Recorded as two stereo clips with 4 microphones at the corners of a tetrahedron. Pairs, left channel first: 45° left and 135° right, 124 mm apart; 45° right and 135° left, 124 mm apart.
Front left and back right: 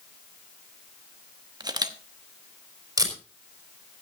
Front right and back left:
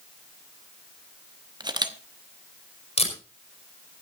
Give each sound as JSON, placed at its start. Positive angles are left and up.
{"t": 1.6, "sound": "a camera shutter", "azimuth_deg": 180, "distance_m": 1.0}
{"t": 3.0, "sound": "tape being pulled", "azimuth_deg": -75, "distance_m": 4.0}